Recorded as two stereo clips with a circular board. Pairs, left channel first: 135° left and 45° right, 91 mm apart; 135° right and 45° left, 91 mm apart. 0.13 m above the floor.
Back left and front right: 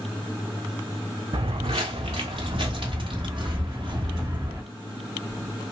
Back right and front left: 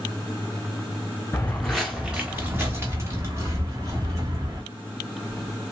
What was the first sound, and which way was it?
Footsteps, 70° right.